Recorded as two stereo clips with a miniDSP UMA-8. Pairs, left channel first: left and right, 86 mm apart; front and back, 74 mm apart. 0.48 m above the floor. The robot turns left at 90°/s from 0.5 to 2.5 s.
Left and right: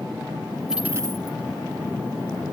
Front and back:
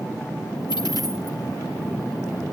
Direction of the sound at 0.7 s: 5° right.